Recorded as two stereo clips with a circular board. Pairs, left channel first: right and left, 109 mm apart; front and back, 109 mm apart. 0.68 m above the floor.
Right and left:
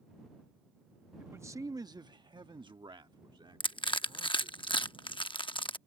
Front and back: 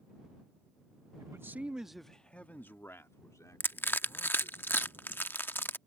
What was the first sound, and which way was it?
A man speaking, 145° left.